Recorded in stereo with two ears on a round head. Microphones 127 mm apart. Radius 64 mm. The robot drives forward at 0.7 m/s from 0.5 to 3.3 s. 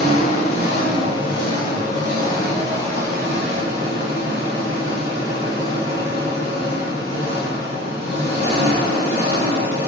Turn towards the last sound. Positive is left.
turn(degrees=20)  # may be behind; listen again after turning